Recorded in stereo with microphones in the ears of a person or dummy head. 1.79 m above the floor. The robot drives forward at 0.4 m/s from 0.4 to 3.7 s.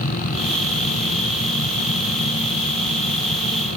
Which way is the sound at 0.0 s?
45° left (ahead or behind).